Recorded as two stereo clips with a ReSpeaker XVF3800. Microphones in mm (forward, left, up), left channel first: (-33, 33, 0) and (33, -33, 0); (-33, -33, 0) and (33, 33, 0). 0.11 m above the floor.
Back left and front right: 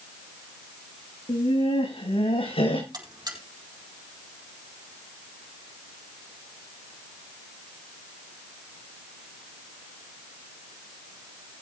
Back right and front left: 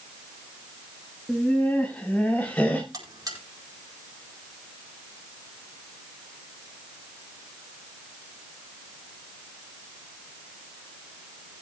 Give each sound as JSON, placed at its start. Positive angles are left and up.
{"t": 1.3, "sound": "laughter", "azimuth_deg": 150, "distance_m": 7.5}
{"t": 2.9, "sound": "a buzzer", "azimuth_deg": 0, "distance_m": 5.0}